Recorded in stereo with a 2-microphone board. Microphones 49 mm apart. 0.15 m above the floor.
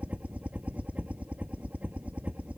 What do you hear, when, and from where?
0.0 s a helicopter: 30° right (ahead or behind)